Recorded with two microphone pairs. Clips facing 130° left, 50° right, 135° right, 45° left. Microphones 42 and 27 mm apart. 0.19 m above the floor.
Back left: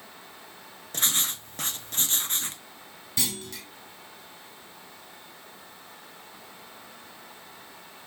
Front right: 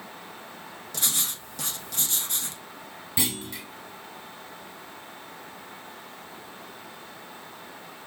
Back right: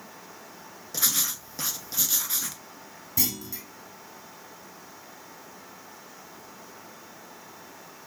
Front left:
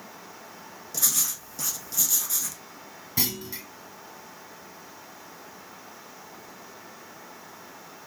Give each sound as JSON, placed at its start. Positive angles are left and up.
{"t": 0.9, "sound": "writing", "azimuth_deg": 170, "distance_m": 0.6}
{"t": 3.2, "sound": "a clunk", "azimuth_deg": 15, "distance_m": 0.6}